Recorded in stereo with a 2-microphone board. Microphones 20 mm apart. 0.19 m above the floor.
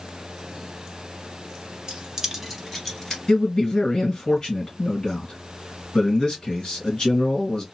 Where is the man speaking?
40° left (ahead or behind), 1.9 m.